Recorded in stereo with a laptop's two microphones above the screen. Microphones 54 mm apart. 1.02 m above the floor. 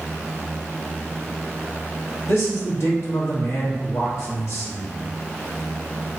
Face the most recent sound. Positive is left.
turn(degrees=60)  # may be behind; listen again after turning